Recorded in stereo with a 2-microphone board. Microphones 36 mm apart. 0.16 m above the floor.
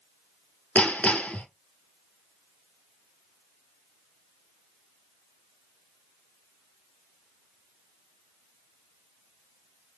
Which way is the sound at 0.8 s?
40° left (ahead or behind).